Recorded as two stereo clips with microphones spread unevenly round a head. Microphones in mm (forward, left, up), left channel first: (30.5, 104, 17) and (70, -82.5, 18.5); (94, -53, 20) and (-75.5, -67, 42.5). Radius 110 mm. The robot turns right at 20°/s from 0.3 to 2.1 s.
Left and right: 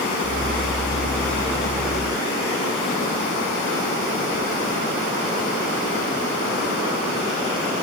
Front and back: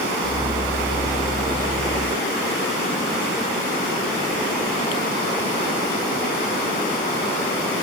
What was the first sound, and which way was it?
Only background noise.